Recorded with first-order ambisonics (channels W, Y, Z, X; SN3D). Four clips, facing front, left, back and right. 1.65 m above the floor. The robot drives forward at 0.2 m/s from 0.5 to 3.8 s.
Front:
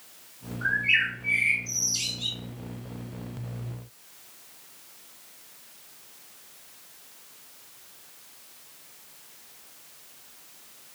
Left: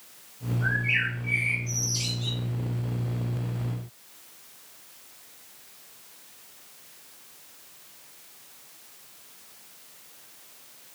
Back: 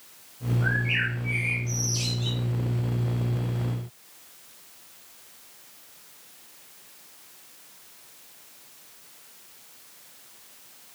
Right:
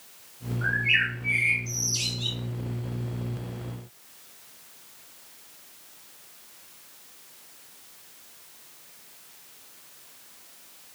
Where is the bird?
45° right, 2.5 m; by 2.4 s 50° right, 2 m.